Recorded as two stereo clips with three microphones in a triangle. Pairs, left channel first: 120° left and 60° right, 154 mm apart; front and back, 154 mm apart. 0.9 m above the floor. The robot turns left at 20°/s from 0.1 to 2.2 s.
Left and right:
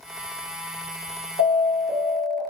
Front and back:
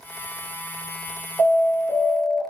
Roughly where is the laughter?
I don't hear laughter.